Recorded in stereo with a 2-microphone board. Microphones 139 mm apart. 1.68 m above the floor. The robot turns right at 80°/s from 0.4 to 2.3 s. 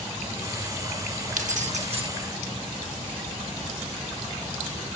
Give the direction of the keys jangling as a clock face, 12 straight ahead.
3 o'clock.